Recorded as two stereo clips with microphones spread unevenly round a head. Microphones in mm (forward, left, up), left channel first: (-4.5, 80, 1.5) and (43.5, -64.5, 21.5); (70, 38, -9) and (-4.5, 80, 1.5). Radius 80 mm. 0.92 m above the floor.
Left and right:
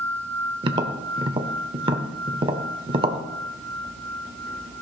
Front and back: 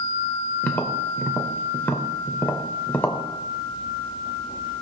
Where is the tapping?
100° right, 0.7 m.